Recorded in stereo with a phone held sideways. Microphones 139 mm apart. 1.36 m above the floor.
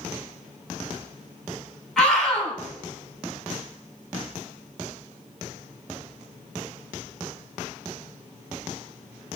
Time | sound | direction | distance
2.0 | a scream | 5° left (ahead or behind) | 6 m